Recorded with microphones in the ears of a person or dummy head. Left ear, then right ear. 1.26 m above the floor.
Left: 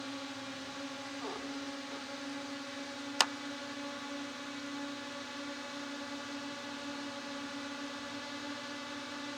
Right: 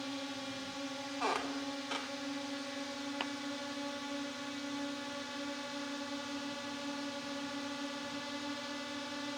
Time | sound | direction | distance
0.0 | a drone | centre (ahead or behind) | ?
1.2 | a squeak | 25° right (ahead or behind) | ?
3.2 | a clap | 65° left (ahead or behind) | ?